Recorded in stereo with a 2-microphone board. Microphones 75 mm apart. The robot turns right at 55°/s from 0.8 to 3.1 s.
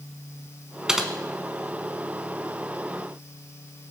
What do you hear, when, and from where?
0.9 s typing on a keyboard: 10° right (ahead or behind), 1.5 m; by 1.1 s centre (ahead or behind), 1.5 m